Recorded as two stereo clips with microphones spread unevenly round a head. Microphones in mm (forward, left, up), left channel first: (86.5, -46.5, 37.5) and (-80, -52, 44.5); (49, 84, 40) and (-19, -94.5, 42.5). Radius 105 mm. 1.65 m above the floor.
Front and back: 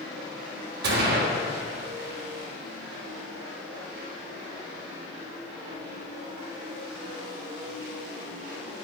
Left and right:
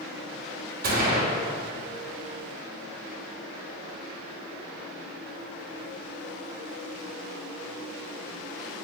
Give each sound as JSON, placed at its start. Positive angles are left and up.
{"t": 0.8, "sound": "a gunshot", "azimuth_deg": -160, "distance_m": 3.0}